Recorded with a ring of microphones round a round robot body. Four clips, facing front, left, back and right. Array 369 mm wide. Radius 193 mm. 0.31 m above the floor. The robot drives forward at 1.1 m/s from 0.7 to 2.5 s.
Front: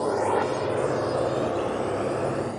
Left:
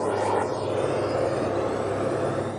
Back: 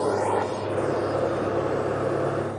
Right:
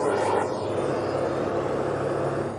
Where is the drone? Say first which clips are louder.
Right 1 dB, even; 125° right; by 2.6 s 40° left.